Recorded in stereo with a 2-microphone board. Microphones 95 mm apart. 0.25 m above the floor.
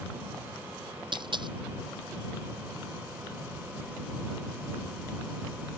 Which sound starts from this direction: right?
A dropped coin, at 1.1 s.